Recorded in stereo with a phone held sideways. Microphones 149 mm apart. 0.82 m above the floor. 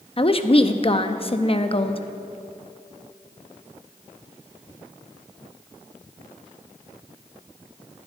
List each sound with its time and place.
0.2 s a woman speaking: 40° left (ahead or behind), 0.7 m